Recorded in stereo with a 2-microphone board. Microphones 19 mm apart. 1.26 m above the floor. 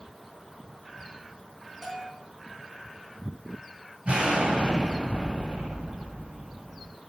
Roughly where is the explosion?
Right.